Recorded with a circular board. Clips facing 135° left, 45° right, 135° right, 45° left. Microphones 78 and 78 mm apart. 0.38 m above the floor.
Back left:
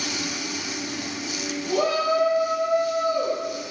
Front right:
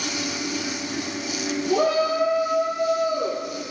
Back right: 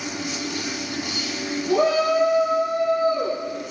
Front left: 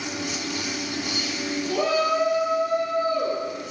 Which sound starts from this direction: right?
A shout, at 1.7 s.